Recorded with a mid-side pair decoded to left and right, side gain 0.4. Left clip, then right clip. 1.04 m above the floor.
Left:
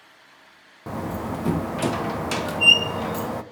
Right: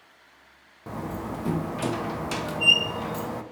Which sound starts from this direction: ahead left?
A door slam, at 0.9 s.